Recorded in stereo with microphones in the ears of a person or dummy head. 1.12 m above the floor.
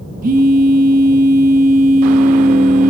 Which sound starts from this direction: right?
A phone buzzing, at 0.2 s.